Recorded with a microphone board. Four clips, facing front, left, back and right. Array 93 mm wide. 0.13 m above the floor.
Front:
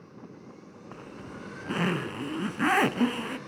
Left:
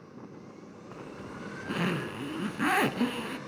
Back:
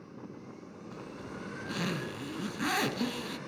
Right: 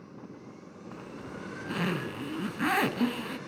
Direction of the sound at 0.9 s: 10° left.